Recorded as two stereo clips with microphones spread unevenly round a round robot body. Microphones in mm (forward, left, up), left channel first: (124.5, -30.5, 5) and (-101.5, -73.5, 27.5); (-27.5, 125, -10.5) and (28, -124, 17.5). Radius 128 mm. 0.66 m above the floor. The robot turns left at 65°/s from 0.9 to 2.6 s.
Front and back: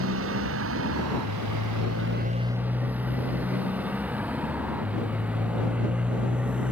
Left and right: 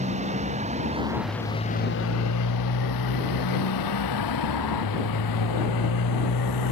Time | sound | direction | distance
0.0 | a motorcycle | 140° right | ?